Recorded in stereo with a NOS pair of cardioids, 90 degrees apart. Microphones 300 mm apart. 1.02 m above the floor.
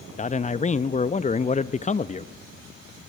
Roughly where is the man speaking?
Ahead left.